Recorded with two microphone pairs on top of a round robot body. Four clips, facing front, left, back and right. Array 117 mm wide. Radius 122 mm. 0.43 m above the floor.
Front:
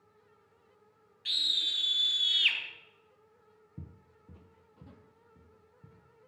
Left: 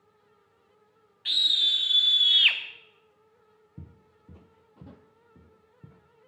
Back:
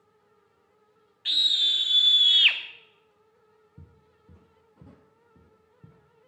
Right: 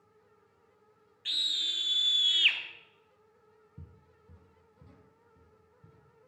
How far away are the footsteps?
About 0.5 m.